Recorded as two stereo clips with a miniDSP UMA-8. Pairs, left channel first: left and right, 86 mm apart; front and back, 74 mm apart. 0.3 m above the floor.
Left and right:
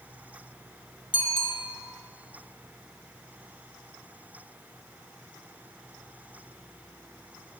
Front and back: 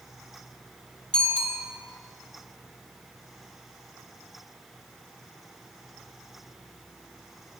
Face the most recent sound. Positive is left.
turn(degrees=75)